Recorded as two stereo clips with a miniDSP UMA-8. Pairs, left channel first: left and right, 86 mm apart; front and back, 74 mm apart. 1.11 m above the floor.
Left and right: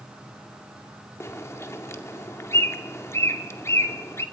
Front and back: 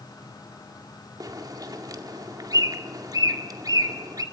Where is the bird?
145° left, 2 m.